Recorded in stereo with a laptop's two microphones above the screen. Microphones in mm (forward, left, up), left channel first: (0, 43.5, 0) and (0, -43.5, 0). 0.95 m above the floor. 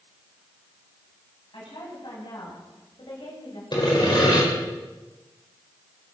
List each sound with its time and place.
1.5 s a woman speaking: 70° left (ahead or behind), 8 m; by 3.6 s 60° left (ahead or behind), 6 m
3.7 s sawing: 60° left (ahead or behind), 4.5 m